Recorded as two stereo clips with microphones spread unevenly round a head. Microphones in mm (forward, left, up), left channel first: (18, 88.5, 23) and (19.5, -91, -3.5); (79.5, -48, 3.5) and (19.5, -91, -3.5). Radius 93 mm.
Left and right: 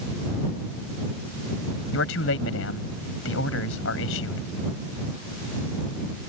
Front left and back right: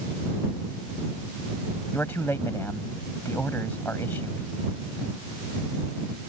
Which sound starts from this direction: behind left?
A man speaking, at 1.9 s.